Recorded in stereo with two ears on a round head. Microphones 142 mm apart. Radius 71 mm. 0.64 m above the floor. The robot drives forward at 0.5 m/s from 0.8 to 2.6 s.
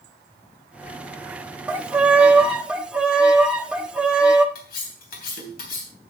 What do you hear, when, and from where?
1.7 s a violin: 10° right (ahead or behind), 1.0 m; by 4.5 s 5° right (ahead or behind), 1.2 m
4.5 s cutlery clinking: 65° left (ahead or behind), 3 m